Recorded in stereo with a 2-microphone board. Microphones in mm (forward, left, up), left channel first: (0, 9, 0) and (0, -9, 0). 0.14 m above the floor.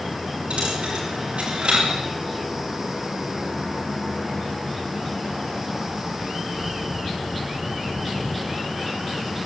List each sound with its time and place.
0.5 s a dropped coin: 75° right (ahead or behind), 10 m